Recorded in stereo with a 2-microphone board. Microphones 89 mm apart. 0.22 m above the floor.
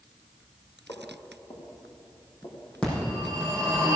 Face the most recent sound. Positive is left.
turn(degrees=15)  # may be behind; listen again after turning